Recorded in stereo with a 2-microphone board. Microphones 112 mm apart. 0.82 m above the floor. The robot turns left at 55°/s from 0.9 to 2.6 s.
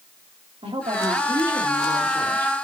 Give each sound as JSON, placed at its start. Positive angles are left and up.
{"t": 0.6, "sound": "a woman speaking", "azimuth_deg": -115, "distance_m": 2.5}